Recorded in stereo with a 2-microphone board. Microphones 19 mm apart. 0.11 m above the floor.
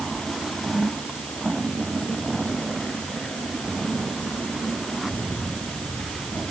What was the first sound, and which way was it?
Only background noise.